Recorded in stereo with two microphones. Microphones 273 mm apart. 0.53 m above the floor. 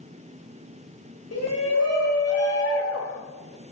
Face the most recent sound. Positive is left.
turn(degrees=55)  # may be behind; listen again after turning